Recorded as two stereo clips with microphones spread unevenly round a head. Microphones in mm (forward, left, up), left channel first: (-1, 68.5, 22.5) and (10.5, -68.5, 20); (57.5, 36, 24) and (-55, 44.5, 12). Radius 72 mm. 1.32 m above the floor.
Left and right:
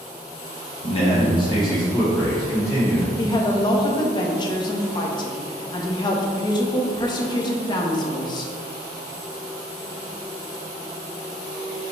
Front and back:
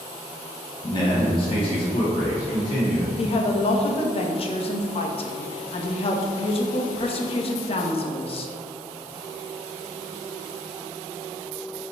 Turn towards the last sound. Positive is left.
turn(degrees=35)